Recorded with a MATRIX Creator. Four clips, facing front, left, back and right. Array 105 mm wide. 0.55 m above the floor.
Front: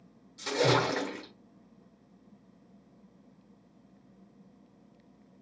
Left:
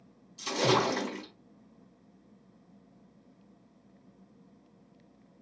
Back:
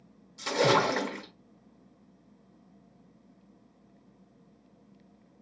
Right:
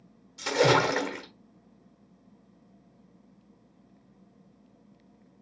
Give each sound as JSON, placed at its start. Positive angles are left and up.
{"t": 0.4, "sound": "a splash", "azimuth_deg": -95, "distance_m": 1.1}